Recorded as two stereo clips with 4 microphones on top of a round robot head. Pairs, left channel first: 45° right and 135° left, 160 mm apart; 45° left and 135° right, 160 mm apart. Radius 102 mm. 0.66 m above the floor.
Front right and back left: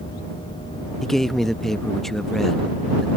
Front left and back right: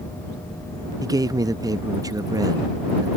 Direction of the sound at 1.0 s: 130° right.